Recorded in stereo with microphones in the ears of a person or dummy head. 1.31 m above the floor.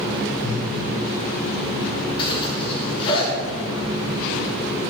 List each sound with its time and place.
0.4 s breathing: 20° left (ahead or behind), 5.5 m
2.2 s a zipper: 35° left (ahead or behind), 5 m